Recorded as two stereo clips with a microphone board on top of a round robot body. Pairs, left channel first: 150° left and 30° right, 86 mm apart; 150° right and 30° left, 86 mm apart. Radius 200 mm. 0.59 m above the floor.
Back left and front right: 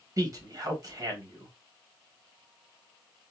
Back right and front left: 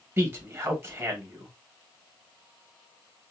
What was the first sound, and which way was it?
A man speaking, 20° right.